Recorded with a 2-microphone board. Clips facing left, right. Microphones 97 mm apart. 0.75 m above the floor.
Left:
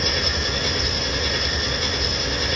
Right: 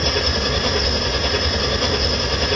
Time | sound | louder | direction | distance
0.0 | an engine running | right 4 dB | 60° right (ahead or behind) | 0.7 m